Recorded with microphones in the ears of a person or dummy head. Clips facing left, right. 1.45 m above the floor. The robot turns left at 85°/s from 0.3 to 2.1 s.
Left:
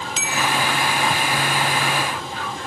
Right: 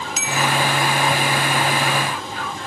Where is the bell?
25° left (ahead or behind), 0.5 m; by 0.5 s 10° left (ahead or behind), 0.5 m.